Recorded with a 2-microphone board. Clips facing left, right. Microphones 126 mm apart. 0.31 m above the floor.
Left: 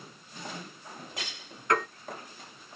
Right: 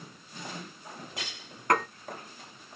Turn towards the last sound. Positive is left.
turn(degrees=-55)  # may be behind; listen again after turning